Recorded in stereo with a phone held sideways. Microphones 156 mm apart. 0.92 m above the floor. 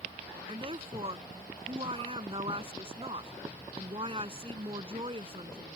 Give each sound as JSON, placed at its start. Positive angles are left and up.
{"t": 0.5, "sound": "a woman speaking", "side_deg": -35}